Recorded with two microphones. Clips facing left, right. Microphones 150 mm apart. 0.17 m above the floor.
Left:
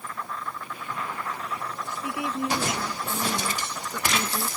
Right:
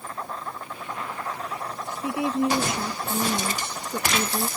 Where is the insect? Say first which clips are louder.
Right 1 dB; 35° right (ahead or behind).